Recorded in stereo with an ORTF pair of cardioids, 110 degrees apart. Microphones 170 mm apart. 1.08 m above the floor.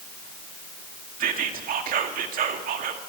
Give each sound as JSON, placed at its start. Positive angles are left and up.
{"t": 1.2, "sound": "whispering", "azimuth_deg": -55, "distance_m": 1.8}